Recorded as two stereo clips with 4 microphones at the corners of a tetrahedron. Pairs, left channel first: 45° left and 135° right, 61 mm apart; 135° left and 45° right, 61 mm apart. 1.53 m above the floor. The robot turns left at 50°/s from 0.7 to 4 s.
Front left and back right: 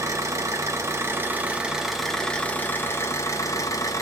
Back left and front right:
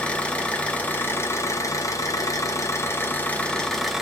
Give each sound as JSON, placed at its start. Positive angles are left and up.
{"t": 0.0, "sound": "an engine running", "azimuth_deg": -160, "distance_m": 0.7}